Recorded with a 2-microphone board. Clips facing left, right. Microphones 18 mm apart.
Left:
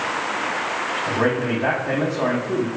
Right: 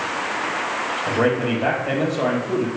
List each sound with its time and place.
1.1 s a man speaking: 35° right (ahead or behind), 3 m